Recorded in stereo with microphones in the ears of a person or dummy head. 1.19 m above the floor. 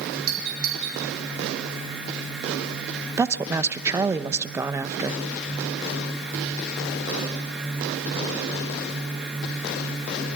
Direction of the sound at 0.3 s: 55° right (ahead or behind).